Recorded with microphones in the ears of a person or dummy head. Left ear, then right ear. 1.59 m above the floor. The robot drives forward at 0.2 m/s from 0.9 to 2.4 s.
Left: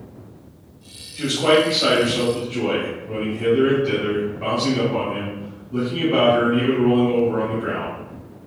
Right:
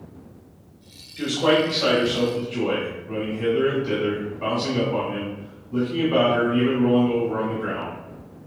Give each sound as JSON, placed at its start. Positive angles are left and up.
{"t": 1.2, "sound": "a man speaking", "side_deg": -25, "distance_m": 1.0}